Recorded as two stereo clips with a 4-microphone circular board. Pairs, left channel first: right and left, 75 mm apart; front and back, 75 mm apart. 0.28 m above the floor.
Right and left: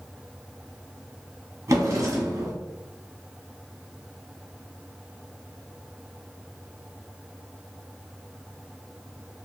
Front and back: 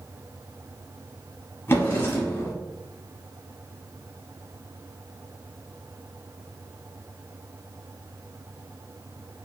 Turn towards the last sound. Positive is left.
turn(degrees=50)